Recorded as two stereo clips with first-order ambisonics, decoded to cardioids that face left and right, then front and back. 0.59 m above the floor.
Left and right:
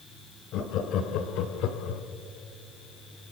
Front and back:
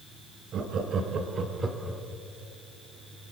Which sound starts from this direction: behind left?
Laughter, at 0.5 s.